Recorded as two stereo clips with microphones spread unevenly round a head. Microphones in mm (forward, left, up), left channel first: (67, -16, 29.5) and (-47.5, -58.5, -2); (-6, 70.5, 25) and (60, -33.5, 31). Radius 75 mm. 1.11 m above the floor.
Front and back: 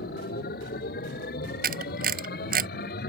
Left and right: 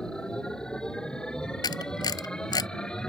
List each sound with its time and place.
0.0 s a machine running: 40° left
1.6 s a camera shutter: 170° right